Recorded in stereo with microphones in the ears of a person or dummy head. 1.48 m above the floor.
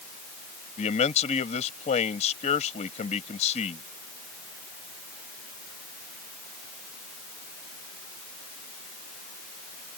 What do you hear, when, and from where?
0.8 s a man speaking: 40° left (ahead or behind)